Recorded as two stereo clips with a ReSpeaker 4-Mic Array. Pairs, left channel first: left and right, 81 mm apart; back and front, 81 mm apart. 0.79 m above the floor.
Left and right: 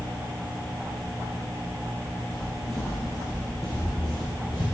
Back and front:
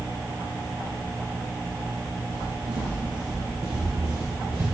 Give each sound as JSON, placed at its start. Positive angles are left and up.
{"t": 2.3, "sound": "footsteps", "azimuth_deg": 20, "distance_m": 3.5}